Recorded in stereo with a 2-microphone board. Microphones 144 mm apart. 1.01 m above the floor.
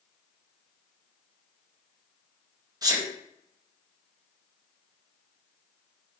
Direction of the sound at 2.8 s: 25° right (ahead or behind).